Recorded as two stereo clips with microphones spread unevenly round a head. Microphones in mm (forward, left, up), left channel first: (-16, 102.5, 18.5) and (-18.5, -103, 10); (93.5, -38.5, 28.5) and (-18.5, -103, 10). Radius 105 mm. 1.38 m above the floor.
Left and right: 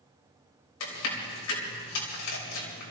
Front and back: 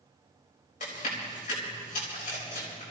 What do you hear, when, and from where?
0.8 s chewing: 90° left, 4.5 m